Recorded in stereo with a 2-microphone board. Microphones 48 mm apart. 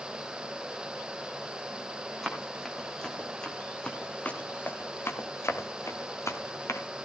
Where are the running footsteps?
5° left (ahead or behind), 4.5 m; by 6.8 s 75° left (ahead or behind), 2.5 m.